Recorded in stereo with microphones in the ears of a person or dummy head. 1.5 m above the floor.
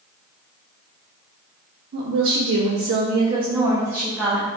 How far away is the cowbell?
I don't hear a cowbell.